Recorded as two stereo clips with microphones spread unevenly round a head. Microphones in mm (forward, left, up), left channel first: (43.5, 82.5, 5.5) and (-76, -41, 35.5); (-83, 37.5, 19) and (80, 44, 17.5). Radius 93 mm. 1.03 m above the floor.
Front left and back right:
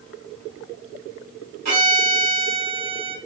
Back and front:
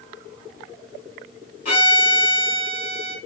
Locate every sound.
1.6 s a violin: 135° right, 1.2 m